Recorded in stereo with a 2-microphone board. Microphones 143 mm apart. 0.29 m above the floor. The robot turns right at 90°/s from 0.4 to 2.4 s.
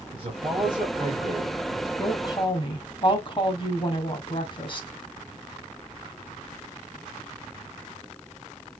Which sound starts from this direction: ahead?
A woman speaking, at 2.0 s.